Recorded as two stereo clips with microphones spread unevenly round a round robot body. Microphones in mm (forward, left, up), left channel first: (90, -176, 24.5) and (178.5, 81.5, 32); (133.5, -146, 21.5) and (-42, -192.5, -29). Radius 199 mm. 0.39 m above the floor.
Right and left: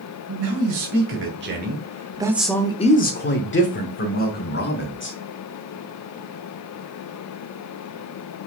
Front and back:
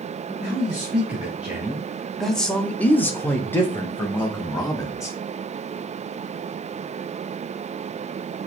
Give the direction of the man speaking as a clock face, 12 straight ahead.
8 o'clock.